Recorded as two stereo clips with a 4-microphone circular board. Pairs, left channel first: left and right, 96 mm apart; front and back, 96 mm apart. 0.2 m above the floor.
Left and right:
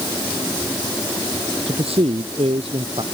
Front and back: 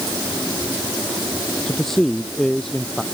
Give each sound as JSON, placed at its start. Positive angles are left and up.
{"t": 1.7, "sound": "a man speaking", "azimuth_deg": -85}